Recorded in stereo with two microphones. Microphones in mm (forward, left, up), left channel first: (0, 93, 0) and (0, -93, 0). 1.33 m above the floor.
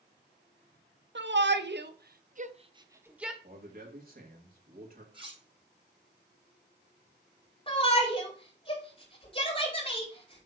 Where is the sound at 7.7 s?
30° left (ahead or behind), 5 m.